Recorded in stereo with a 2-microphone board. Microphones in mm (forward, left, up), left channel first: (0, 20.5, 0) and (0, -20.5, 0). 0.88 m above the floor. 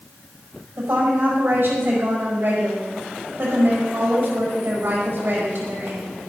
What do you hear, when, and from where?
0.8 s a woman speaking: 50° right (ahead or behind), 5.5 m